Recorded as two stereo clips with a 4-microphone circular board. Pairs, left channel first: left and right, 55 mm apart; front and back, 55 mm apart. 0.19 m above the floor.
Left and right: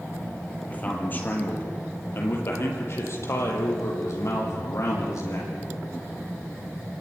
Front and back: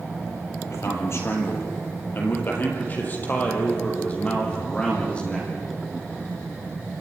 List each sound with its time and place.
0.7 s a man speaking: 30° left, 4 m; by 5.5 s 70° left, 6.5 m